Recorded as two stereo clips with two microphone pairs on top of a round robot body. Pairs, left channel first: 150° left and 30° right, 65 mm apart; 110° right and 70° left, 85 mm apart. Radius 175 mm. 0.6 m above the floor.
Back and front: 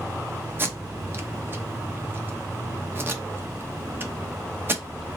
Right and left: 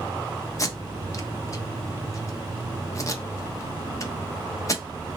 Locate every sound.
0.6 s tape being pulled: 75° right, 0.9 m